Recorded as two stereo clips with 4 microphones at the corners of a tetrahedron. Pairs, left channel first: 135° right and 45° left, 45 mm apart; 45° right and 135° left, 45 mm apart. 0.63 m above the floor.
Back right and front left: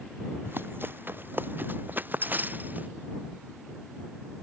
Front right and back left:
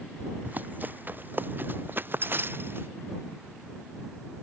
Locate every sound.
0.5 s running footsteps: 85° left; by 2.9 s 95° left